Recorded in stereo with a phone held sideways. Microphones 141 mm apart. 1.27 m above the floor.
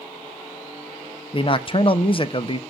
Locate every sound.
1.3 s a man speaking: 40° left (ahead or behind), 0.6 m